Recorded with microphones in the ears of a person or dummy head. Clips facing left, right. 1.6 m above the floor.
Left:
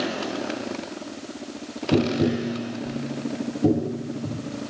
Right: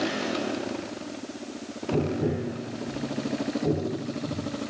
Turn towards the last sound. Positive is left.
turn(degrees=70)  # may be behind; listen again after turning